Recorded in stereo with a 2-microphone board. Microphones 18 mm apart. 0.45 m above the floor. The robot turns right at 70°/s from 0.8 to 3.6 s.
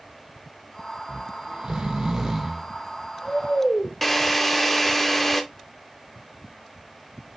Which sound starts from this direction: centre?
A drill, at 4.0 s.